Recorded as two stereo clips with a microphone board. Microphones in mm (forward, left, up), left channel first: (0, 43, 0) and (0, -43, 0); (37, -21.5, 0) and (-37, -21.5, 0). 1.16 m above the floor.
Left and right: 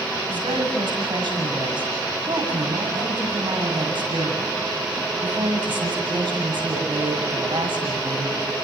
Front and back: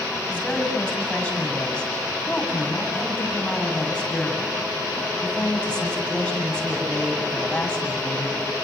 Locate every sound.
0.3 s a woman speaking: 75° right, 8.5 m